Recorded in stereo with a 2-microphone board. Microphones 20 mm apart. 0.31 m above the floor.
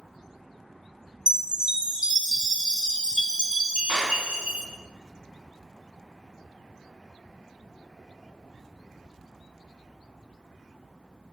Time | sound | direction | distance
1.3 | a chime | 50° right (ahead or behind) | 0.5 m
3.9 | a clap | 15° left (ahead or behind) | 2.5 m